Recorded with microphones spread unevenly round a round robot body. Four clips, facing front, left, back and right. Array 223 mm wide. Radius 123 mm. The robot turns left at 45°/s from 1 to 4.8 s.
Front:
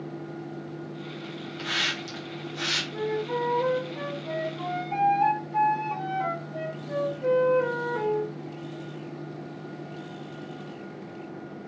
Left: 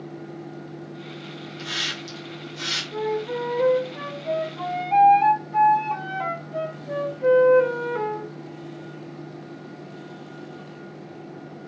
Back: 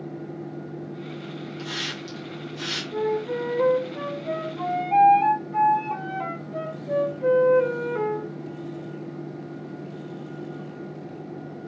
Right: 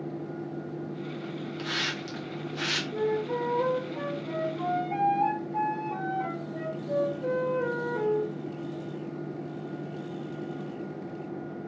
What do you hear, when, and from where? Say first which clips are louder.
1.6 s a hiss: left 2 dB, front 1 dB; 10° right, 1.2 m; by 2.8 s 65° right, 1.2 m
2.9 s a flute: left 3 dB, back 4 dB; 170° right, 1.1 m; by 8.3 s 105° left, 1.1 m